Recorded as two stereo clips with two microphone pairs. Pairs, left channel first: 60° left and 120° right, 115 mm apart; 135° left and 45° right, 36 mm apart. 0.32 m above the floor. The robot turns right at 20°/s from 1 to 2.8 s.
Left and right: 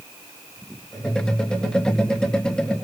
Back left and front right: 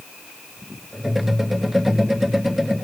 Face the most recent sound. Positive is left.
No sound to turn to.